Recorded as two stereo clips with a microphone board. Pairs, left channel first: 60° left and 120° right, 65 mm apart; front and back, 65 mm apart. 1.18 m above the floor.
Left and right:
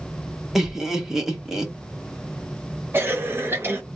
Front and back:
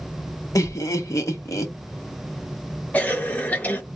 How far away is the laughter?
About 1.3 m.